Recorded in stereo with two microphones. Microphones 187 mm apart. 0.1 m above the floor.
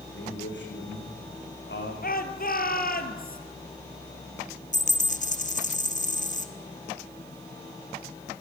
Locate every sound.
0.1 s a man speaking: 80° left, 7 m
2.0 s a shout: 55° left (ahead or behind), 2.0 m
4.7 s a dropped coin: 45° left (ahead or behind), 1.5 m